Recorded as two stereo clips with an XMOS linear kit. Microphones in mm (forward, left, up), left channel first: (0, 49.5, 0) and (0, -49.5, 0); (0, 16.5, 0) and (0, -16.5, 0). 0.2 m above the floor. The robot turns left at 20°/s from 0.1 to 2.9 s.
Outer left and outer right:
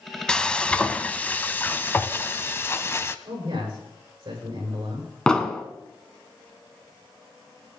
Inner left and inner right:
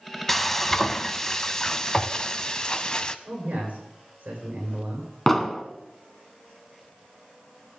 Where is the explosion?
10° left (ahead or behind), 1.2 m.